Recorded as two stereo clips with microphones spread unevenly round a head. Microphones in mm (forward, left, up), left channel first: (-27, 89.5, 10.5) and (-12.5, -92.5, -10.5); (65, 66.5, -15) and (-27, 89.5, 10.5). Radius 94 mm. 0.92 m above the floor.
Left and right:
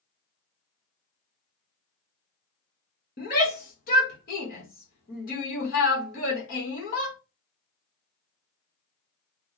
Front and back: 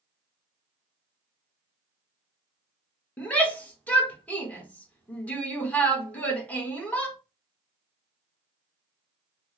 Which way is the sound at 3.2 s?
50° left.